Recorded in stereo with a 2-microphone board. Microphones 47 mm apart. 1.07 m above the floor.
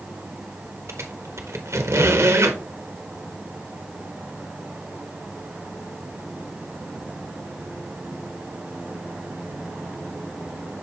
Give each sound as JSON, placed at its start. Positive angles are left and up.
{"t": 0.9, "sound": "a squeak", "side_deg": -80, "distance_m": 1.2}